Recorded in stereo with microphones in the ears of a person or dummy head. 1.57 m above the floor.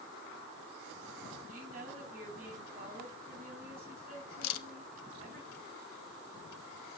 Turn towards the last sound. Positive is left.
turn(degrees=85)